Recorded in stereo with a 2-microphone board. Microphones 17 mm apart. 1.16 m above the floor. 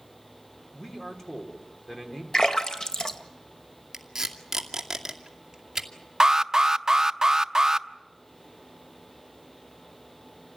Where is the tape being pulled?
25° right (ahead or behind), 2.5 m.